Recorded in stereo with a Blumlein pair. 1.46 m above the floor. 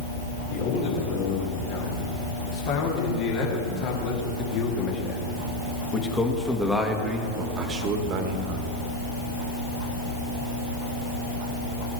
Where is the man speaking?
50° left, 5.5 m; by 8.7 s 45° right, 1.8 m.